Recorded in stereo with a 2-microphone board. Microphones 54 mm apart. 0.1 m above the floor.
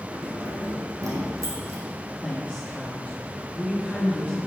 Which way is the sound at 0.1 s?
70° right (ahead or behind).